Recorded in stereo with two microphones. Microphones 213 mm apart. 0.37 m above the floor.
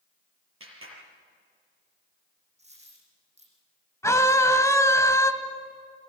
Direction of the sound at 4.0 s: 15° left (ahead or behind).